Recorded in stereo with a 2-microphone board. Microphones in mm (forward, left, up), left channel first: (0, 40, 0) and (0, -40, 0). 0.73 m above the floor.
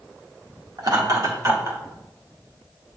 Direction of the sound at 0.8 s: 55° right (ahead or behind).